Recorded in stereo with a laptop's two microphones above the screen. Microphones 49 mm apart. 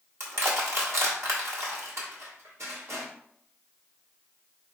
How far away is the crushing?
About 1.4 m.